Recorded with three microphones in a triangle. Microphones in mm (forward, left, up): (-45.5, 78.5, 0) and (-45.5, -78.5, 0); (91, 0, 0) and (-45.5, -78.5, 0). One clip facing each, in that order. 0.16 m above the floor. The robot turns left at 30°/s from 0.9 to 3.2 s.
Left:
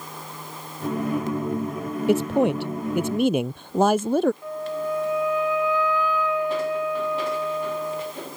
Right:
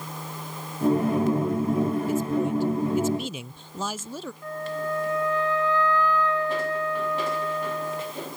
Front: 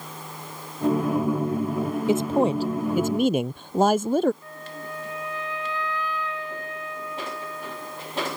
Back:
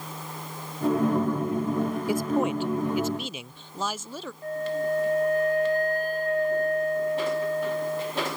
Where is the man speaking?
95° left; by 4.3 s 65° left.